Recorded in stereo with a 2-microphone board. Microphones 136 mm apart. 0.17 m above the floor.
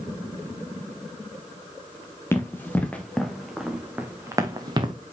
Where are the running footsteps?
20° left (ahead or behind), 2 m; by 4.9 s 40° right (ahead or behind), 1.6 m.